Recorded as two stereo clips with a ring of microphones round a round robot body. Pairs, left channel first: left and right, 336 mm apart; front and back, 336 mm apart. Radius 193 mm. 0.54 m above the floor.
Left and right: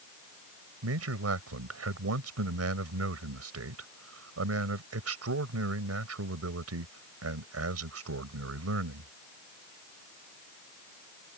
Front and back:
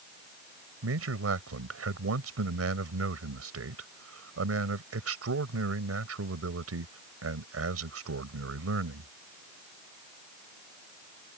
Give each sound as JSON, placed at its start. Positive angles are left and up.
{"t": 0.8, "sound": "a man speaking", "azimuth_deg": -135}